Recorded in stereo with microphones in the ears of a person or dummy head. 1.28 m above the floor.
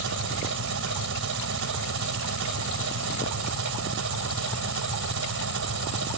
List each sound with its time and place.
0.0 s an engine running: 70° right (ahead or behind)